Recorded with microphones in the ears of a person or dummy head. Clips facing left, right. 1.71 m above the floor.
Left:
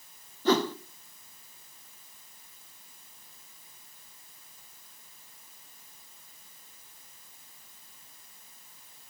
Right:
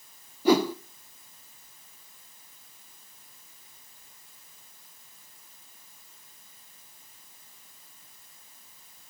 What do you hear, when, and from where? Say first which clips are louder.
0.5 s a whoosh: right 4 dB; 10° right (ahead or behind), 0.6 m